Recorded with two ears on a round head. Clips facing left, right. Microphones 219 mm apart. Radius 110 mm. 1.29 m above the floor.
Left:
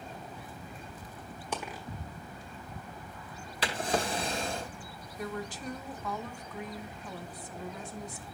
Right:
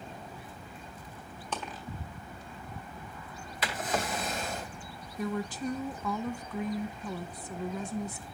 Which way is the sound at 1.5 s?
10° left (ahead or behind).